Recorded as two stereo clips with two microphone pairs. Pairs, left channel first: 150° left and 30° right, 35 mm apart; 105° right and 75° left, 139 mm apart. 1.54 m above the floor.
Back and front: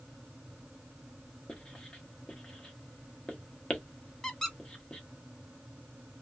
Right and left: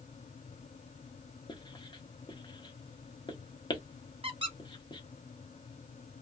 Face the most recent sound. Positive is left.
turn(degrees=85)